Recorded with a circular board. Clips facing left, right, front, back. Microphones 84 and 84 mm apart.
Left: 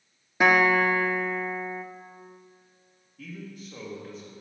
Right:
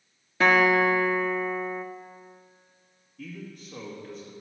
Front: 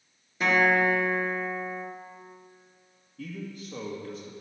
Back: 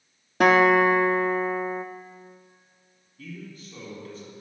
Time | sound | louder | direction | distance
0.4 | a guitar | even, back 6 dB | 165° left | 1.0 m
3.2 | a man speaking | even, front 3 dB | straight ahead | 2 m